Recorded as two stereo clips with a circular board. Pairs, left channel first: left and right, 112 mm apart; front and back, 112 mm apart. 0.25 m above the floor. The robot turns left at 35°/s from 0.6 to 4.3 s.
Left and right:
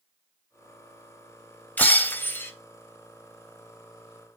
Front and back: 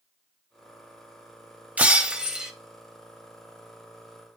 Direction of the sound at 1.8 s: 130° left.